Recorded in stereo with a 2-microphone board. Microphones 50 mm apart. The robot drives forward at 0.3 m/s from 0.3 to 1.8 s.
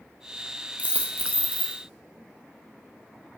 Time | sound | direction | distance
0.8 | a dropped coin | 30° right (ahead or behind) | 1.1 m